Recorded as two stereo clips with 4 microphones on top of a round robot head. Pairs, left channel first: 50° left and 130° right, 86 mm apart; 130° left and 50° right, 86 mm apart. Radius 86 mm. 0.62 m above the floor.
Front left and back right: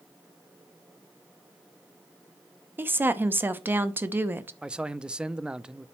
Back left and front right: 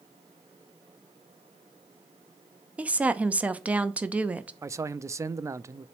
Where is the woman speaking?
105° right, 0.9 m.